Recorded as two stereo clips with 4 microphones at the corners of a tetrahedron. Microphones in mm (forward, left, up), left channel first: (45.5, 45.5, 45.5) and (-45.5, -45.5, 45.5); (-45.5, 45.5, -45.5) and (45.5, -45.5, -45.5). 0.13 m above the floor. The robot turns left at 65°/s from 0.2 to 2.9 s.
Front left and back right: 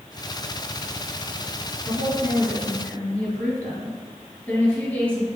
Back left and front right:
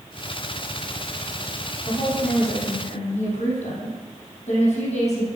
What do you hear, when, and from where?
1.9 s a woman speaking: 165° right, 3.5 m; by 5.3 s 125° left, 3.5 m